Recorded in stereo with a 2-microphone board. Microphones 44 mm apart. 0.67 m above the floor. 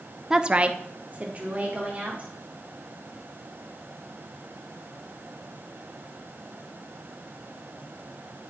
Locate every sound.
0.3 s a woman speaking: 10° right (ahead or behind), 0.5 m; by 2.3 s 30° right (ahead or behind), 2.5 m